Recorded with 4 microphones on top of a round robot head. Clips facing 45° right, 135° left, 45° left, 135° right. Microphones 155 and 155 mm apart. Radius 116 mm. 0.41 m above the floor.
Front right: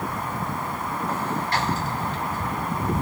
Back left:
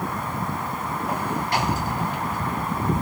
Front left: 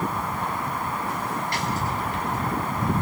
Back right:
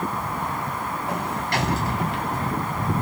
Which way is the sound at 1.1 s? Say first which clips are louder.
Back left 2 dB, back right 2 dB; 150° right.